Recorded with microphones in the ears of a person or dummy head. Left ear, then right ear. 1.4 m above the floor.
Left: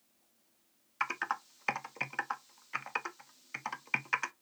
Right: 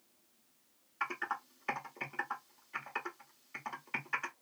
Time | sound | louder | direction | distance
1.0 | typing on a keyboard | left 3 dB | 55° left (ahead or behind) | 0.7 m